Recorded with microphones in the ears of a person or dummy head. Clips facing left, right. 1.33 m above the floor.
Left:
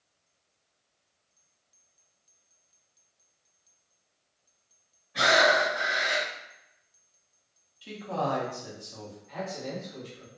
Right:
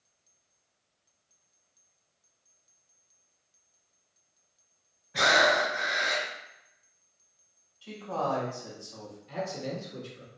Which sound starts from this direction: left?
A man speaking, at 7.8 s.